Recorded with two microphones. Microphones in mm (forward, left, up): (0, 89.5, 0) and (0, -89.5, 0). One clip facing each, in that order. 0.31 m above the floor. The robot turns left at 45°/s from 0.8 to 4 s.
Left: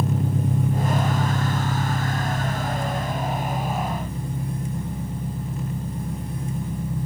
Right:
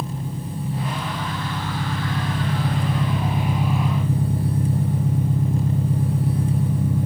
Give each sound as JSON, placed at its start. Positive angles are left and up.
{"t": 0.0, "sound": "an engine running", "azimuth_deg": 55, "distance_m": 6.5}